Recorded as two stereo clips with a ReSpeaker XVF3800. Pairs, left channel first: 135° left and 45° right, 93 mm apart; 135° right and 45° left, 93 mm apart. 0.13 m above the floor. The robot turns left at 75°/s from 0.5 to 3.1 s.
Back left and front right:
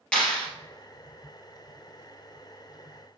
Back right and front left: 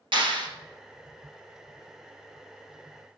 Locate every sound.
0.1 s a clap: 55° left, 2.5 m